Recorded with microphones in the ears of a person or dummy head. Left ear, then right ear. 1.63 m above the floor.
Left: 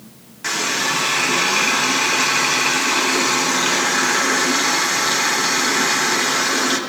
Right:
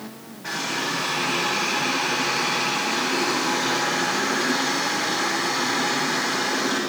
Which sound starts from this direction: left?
A running tap, at 0.4 s.